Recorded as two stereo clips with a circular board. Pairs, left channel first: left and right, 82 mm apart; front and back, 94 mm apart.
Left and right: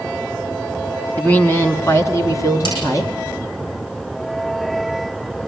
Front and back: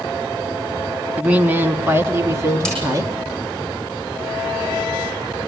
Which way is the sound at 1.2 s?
115° left.